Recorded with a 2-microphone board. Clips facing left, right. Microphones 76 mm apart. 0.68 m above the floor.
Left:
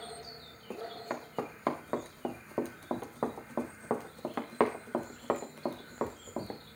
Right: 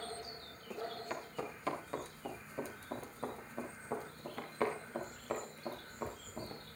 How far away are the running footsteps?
About 3 m.